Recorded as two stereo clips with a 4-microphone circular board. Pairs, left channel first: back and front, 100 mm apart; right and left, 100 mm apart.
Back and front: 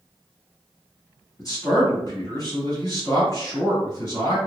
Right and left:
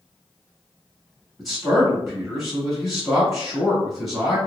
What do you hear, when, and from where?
1.4 s a man speaking: straight behind, 1.8 m